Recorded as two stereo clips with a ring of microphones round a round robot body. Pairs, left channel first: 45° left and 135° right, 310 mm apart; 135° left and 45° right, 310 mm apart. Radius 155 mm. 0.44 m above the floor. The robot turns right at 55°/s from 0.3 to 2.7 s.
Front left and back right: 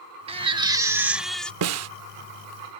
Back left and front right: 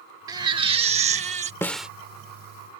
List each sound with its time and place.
0.3 s a baby crying: 100° right; by 1.5 s 35° right
1.6 s a snare drum: 145° right; by 1.9 s 130° right